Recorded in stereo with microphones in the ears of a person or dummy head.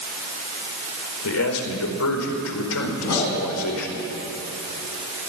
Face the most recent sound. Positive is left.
turn(degrees=85)